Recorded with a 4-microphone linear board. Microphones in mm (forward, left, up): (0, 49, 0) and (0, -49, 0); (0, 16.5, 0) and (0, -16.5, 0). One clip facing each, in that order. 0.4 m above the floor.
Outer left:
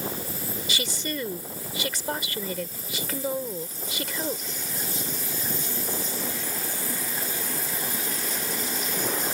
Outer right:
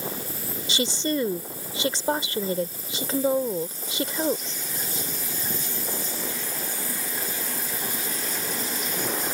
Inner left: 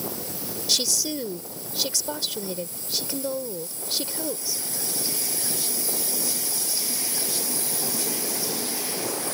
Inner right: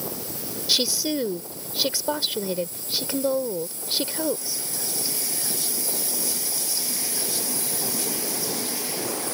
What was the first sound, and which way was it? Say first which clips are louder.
A woman speaking: outer right 8 dB, inner right 3 dB; 25° right (ahead or behind).